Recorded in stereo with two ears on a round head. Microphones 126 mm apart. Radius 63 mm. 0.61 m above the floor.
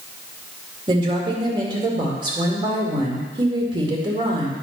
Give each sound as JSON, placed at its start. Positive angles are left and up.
{"t": 0.9, "sound": "a woman speaking", "side_deg": -35, "distance_m": 2.0}